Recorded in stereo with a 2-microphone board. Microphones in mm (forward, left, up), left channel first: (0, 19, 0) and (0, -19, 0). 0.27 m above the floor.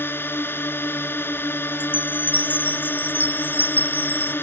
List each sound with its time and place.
0.0 s a drone: 70° left (ahead or behind)
1.8 s a chime: 50° left (ahead or behind)